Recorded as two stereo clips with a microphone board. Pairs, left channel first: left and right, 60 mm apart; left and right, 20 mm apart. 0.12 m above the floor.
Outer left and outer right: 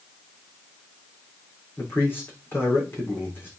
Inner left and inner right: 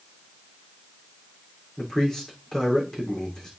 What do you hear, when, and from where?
1.8 s a man speaking: 35° left (ahead or behind), 6 m